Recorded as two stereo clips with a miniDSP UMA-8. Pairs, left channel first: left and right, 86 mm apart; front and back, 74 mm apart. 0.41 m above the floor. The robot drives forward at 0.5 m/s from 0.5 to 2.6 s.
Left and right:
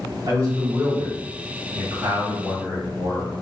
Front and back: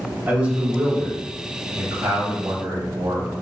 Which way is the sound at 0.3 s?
115° right.